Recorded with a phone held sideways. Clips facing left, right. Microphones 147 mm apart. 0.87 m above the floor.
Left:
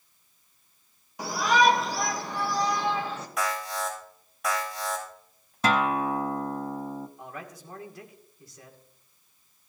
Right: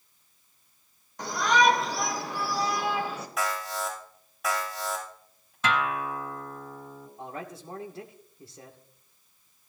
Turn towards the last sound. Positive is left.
turn(degrees=-30)  # may be behind; listen again after turning